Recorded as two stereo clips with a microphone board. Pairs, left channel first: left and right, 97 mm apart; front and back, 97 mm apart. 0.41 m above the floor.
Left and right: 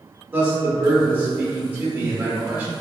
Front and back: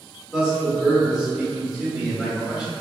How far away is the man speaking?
About 0.7 m.